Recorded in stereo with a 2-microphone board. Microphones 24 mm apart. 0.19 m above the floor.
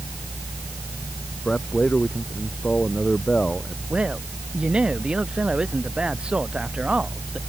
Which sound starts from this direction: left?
A man speaking, at 1.4 s.